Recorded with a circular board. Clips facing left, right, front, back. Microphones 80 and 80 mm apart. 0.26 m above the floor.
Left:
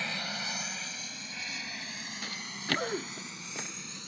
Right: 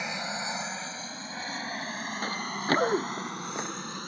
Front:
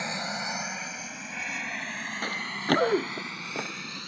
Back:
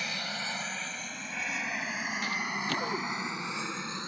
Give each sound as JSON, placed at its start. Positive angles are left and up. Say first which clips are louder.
{"t": 0.0, "sound": "an aircraft", "louder": "right 4 dB, front 4 dB", "azimuth_deg": -35}
{"t": 2.2, "sound": "running footsteps", "louder": "right 8 dB, front 5 dB", "azimuth_deg": -45}